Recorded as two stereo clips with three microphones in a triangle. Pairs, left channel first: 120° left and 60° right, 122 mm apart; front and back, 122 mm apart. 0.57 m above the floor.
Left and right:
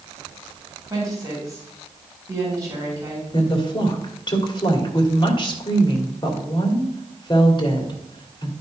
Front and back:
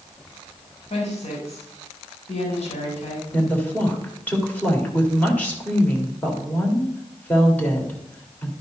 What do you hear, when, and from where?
0.9 s a woman speaking: straight ahead, 2.5 m
3.3 s a woman speaking: 75° left, 2 m